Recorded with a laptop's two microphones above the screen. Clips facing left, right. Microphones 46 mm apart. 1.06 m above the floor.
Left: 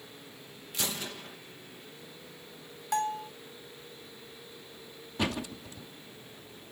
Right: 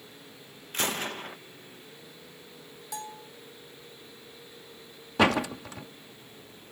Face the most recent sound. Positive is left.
turn(degrees=-90)